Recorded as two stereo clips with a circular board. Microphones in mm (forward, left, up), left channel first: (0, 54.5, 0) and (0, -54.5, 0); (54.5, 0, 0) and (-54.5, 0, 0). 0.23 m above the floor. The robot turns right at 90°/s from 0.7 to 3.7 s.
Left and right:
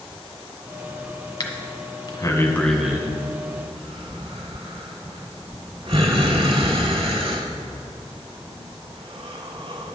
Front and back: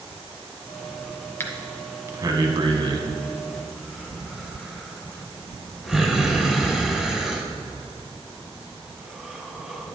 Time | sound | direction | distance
1.4 | breathing | 55° left | 1.2 m